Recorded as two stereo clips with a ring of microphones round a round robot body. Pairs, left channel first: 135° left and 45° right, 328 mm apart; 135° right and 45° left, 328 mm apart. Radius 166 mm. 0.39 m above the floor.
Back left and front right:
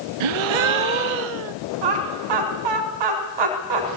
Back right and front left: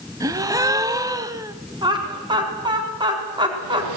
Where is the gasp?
35° right, 0.6 m.